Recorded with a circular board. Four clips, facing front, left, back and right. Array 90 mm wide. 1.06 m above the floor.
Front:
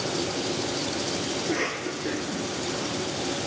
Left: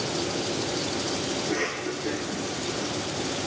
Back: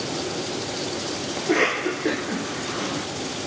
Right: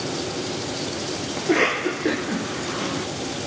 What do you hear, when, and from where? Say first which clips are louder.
1.4 s a cough: right 7 dB, back 11 dB; 125° right, 0.7 m